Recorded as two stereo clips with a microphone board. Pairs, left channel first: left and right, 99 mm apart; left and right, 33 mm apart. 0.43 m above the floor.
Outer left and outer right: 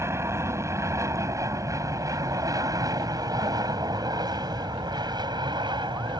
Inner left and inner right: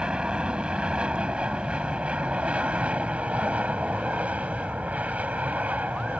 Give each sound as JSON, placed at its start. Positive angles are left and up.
{"t": 0.0, "sound": "an aircraft", "side_deg": -25}